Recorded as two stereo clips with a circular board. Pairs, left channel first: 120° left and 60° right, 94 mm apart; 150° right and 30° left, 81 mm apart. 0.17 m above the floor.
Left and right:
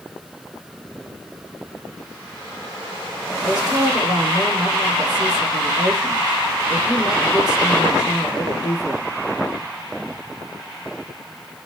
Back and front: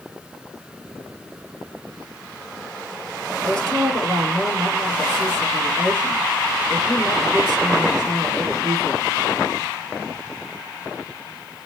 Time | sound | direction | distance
3.4 | a woman speaking | 75° left | 4.5 m